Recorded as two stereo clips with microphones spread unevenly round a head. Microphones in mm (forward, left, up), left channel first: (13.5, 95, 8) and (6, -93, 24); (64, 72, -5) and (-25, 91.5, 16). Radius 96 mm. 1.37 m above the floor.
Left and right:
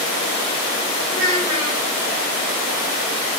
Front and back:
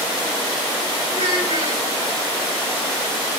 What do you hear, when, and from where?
1.1 s a child speaking: 160° left, 9 m